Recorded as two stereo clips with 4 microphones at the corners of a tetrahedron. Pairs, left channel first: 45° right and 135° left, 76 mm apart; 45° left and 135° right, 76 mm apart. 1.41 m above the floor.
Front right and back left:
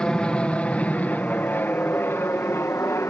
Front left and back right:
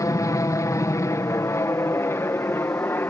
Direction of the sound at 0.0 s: 30° left.